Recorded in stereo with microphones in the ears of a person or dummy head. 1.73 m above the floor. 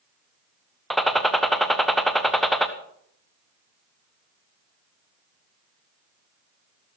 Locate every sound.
0.9 s a gunshot: centre (ahead or behind), 1.0 m